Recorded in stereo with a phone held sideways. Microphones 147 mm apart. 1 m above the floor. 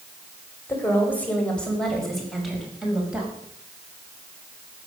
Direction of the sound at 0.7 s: 15° left (ahead or behind).